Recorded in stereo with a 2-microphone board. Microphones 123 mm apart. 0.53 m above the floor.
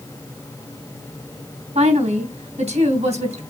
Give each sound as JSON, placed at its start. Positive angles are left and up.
{"t": 1.8, "sound": "a woman speaking", "side_deg": -75, "distance_m": 3.0}